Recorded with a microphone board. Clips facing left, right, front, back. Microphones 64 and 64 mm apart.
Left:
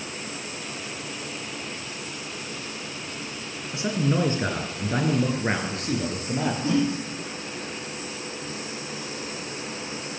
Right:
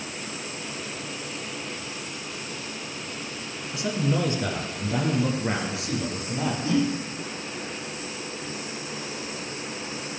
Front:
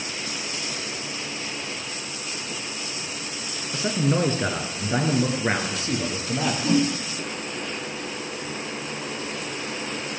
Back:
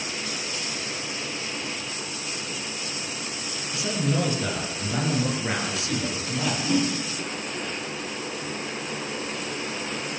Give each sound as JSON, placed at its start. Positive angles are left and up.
{"t": 3.7, "sound": "a man speaking", "azimuth_deg": 35, "distance_m": 2.5}
{"t": 6.6, "sound": "a whoosh", "azimuth_deg": 30, "distance_m": 8.5}